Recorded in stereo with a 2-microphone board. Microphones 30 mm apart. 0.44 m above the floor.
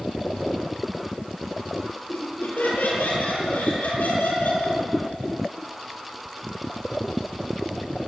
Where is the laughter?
80° left, 8.5 m; by 4.8 s 85° left, 9.5 m.